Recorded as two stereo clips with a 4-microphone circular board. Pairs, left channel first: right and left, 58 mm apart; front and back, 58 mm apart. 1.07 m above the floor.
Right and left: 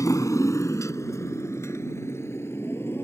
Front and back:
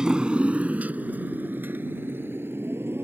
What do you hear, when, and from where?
0.0 s a motorcycle: 105° right; by 3.0 s 135° right